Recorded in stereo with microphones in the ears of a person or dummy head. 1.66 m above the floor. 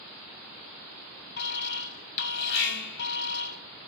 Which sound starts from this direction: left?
An alarm, at 1.4 s.